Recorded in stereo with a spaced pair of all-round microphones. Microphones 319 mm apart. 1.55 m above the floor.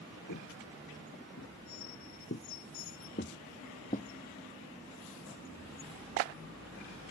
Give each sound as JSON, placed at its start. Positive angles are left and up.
{"t": 0.3, "sound": "footsteps", "side_deg": 60}